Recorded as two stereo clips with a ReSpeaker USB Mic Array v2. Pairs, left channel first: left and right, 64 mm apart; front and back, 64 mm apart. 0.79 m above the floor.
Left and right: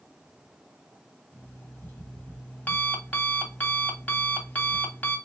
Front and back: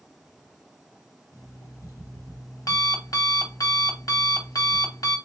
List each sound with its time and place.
1.3 s an alarm clock: 25° left, 1.0 m